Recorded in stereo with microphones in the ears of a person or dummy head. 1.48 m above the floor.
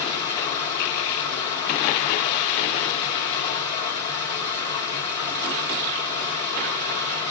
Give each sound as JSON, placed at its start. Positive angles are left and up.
{"t": 0.0, "sound": "running water", "side_deg": 30, "distance_m": 2.0}